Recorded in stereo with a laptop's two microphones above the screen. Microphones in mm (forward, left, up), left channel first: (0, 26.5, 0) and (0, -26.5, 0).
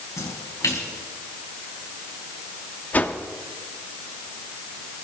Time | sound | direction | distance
0.2 | a splash | 85° left | 4.5 m
2.9 | a whoosh | 30° left (ahead or behind) | 1.1 m